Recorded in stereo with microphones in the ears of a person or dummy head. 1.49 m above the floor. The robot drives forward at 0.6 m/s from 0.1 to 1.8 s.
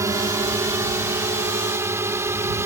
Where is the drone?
15° right (ahead or behind).